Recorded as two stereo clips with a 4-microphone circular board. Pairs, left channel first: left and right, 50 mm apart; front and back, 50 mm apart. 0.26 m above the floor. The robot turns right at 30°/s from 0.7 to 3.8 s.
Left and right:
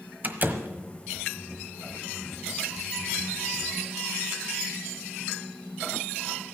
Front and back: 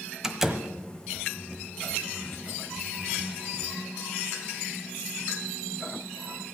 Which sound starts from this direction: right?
A door slam, at 0.2 s.